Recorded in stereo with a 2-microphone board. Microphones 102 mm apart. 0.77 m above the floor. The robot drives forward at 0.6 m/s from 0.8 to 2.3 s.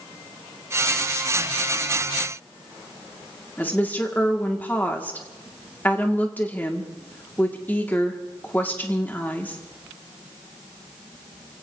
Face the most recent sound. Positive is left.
turn(degrees=15)  # may be behind; listen again after turning